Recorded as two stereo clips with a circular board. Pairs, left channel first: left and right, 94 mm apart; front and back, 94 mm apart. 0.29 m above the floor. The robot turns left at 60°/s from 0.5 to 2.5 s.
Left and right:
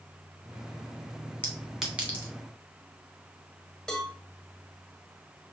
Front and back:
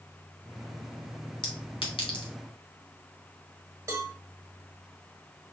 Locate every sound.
1.4 s a clink: 20° left, 1.5 m; by 2.3 s 35° right, 1.5 m
3.9 s a cowbell: 165° left, 1.2 m